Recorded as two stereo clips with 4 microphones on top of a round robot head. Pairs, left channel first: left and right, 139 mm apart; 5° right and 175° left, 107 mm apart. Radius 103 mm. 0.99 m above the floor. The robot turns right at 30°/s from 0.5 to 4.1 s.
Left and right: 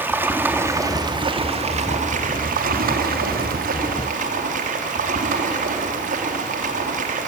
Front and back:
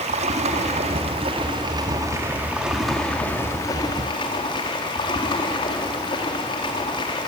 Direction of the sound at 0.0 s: 165° right.